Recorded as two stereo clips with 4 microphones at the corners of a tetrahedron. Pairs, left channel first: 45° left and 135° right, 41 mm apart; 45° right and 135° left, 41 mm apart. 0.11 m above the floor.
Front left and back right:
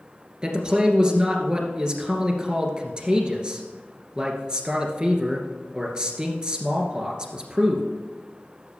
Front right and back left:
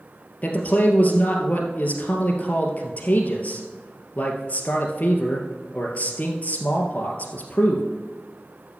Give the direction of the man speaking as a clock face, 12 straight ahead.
3 o'clock.